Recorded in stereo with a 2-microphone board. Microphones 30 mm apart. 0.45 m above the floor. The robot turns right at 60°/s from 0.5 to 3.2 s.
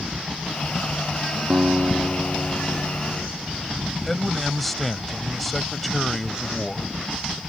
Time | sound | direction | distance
1.5 | a guitar | 65° right | ?
4.1 | a man speaking | 5° left (ahead or behind) | ?